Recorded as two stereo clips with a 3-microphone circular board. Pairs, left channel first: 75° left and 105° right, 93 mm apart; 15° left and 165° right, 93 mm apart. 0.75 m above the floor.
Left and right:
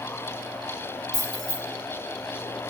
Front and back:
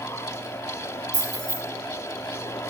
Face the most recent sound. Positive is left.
turn(degrees=150)